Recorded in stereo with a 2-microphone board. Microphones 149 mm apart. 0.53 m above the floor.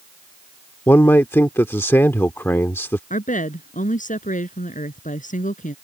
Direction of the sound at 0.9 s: 15° left (ahead or behind).